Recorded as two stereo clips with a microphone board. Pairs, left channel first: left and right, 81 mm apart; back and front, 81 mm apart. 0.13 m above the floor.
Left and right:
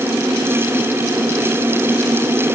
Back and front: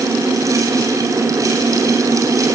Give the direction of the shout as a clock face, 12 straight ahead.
No shout in this recording.